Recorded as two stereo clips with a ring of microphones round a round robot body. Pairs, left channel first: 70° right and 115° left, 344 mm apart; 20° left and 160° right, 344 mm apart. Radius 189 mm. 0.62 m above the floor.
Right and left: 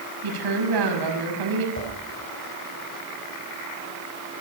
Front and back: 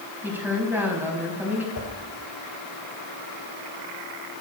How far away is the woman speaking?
About 5.5 m.